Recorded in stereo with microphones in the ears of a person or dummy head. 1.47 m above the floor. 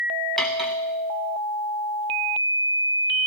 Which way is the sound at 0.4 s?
Centre (ahead or behind).